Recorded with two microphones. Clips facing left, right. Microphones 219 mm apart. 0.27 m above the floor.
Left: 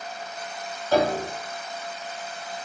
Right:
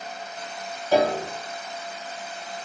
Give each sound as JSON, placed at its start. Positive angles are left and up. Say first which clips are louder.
{"t": 0.9, "sound": "a piano", "louder": "right 1 dB", "side_deg": -15, "distance_m": 1.8}